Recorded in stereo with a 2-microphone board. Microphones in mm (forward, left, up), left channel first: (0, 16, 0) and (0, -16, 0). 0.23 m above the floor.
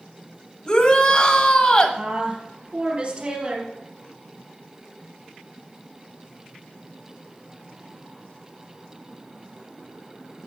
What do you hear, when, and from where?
0.7 s a shout: 30° left (ahead or behind), 1.1 m
2.0 s a woman speaking: 35° right (ahead or behind), 4 m